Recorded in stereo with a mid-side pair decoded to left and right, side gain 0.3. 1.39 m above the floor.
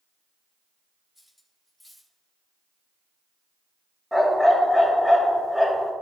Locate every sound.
1.1 s cutlery clinking: 10° left, 2 m
4.1 s a dog barking: 5° left, 3 m